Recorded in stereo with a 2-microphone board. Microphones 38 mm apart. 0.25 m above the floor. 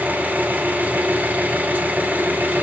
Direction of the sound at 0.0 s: 50° right (ahead or behind).